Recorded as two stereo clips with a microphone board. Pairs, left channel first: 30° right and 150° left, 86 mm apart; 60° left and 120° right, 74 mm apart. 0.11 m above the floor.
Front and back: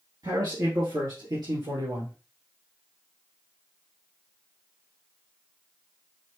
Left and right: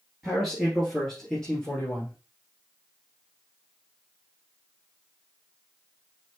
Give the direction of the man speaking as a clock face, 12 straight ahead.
7 o'clock.